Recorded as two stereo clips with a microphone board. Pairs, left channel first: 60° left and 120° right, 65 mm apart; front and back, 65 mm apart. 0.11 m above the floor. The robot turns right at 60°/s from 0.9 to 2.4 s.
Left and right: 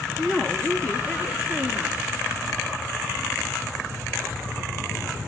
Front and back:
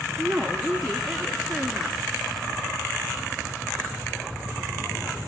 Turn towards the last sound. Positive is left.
turn(degrees=-175)